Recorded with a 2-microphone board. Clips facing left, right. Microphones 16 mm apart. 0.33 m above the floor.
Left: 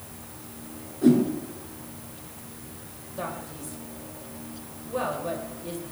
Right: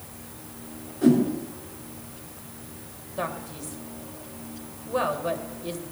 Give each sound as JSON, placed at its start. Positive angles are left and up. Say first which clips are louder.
{"t": 1.0, "sound": "a whoosh", "louder": "even", "side_deg": -20, "distance_m": 5.5}
{"t": 3.2, "sound": "a man speaking", "louder": "right 3 dB", "side_deg": -30, "distance_m": 1.6}